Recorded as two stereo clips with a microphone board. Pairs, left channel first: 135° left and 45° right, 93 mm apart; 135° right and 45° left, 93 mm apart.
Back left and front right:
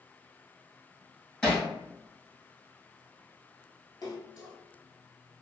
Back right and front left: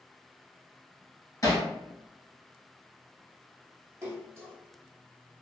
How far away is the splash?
About 1.0 m.